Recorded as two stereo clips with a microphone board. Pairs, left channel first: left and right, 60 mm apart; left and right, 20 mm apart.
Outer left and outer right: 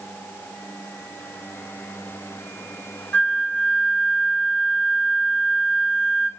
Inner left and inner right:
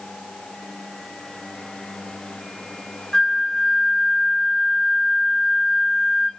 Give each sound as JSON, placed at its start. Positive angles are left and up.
{"t": 3.1, "sound": "a flute", "side_deg": 25, "distance_m": 0.7}